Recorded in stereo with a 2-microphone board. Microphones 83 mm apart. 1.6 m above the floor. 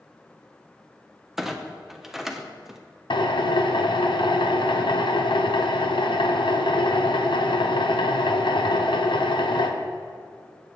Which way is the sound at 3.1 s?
80° left.